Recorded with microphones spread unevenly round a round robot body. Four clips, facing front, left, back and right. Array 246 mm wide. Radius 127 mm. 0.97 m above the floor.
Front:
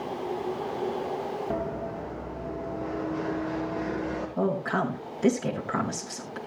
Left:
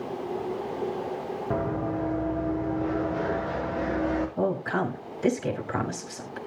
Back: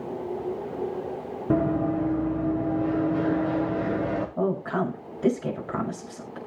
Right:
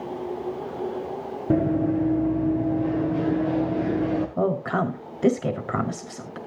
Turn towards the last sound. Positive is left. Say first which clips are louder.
# right 3 dB, front 1 dB
turn(degrees=-75)